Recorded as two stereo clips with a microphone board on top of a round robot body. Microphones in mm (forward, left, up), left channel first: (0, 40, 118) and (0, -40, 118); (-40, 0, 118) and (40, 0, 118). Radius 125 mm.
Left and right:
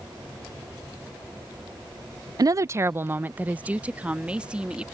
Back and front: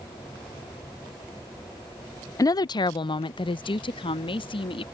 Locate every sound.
2.4 s a woman speaking: 130° right; by 4.8 s 170° right